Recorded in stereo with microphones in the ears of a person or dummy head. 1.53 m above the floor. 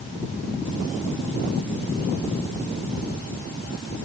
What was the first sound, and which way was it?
Only background noise.